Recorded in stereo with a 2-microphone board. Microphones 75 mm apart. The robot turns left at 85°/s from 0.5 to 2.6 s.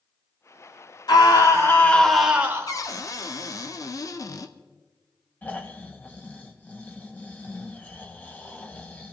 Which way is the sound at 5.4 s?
25° left (ahead or behind).